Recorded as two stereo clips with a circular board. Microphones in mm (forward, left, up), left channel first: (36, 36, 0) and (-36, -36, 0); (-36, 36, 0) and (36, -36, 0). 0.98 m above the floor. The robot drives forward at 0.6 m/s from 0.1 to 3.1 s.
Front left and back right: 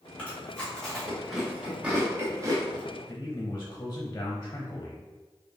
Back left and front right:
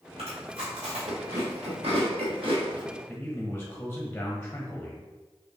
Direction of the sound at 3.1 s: 75° left.